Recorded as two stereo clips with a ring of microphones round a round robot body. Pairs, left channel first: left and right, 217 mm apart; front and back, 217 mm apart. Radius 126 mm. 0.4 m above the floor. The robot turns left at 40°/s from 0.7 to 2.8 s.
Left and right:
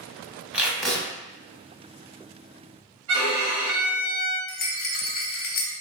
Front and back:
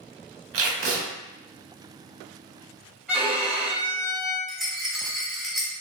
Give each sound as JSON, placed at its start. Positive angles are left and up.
{"t": 0.5, "sound": "tape being pulled", "azimuth_deg": -175, "distance_m": 0.9}
{"t": 3.1, "sound": "a violin", "azimuth_deg": -95, "distance_m": 1.7}
{"t": 4.5, "sound": "a rattle", "azimuth_deg": 90, "distance_m": 0.6}